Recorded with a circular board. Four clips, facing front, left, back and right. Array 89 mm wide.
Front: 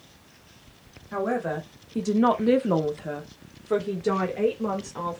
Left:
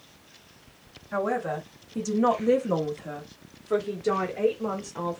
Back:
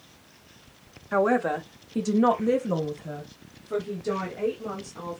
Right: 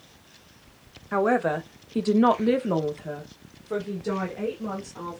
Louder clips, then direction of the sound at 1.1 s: Right 5 dB, back 4 dB; 125° right.